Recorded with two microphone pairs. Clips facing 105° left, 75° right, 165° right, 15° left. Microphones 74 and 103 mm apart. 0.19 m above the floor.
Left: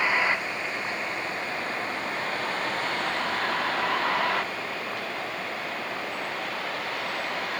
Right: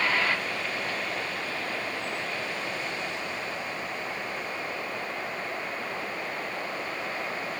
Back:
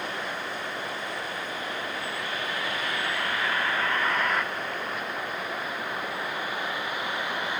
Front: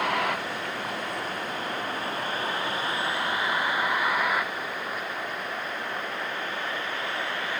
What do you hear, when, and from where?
0.0 s a vehicle: 30° left; by 7.6 s 120° left